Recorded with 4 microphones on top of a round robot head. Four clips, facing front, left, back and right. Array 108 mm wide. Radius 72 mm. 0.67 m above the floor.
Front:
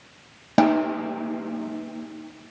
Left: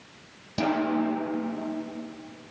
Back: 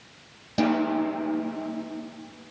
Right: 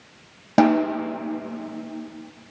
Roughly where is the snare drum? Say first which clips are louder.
Right 8 dB, front 4 dB; ahead right.